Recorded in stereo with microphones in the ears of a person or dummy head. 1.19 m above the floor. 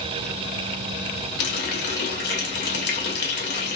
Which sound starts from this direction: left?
A running tap, at 1.4 s.